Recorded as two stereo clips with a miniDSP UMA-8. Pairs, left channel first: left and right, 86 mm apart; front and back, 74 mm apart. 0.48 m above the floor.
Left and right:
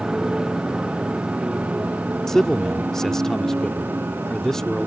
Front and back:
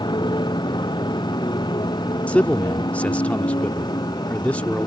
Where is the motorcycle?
10° right; by 4.9 s 25° right.